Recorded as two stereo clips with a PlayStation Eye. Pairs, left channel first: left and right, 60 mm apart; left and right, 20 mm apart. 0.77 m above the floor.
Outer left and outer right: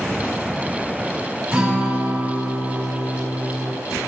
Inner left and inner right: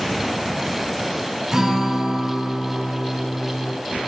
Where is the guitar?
20° right (ahead or behind), 3 m.